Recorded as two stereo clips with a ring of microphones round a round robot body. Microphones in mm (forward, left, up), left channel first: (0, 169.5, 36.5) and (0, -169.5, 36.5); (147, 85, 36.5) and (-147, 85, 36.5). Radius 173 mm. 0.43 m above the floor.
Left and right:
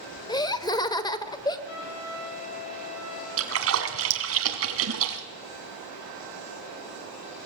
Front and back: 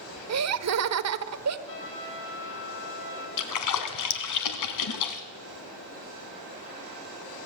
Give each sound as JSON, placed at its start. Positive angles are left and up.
{"t": 0.3, "sound": "laughter", "azimuth_deg": 165, "distance_m": 1.3}
{"t": 1.7, "sound": "a trumpet", "azimuth_deg": 45, "distance_m": 5.5}
{"t": 3.4, "sound": "a splash", "azimuth_deg": -40, "distance_m": 2.0}